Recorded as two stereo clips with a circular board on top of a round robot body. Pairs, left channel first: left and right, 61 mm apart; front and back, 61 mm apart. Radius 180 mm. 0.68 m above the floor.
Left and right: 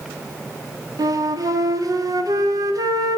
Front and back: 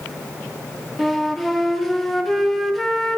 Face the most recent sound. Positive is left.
turn(degrees=-85)